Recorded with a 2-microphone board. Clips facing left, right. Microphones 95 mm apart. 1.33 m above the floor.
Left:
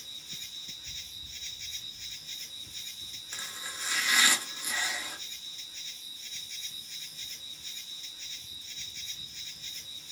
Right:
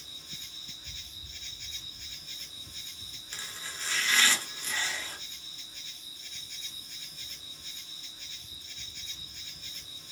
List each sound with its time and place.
0.0 s an insect: 55° right (ahead or behind), 1.5 m
3.3 s chopping: 15° left (ahead or behind), 0.8 m